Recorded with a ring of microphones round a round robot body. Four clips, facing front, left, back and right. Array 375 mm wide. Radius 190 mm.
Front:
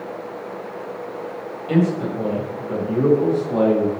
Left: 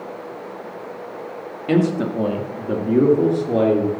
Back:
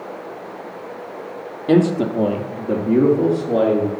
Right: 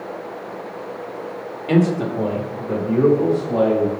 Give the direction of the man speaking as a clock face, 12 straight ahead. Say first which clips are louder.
Right 1 dB, back 4 dB; 6 o'clock.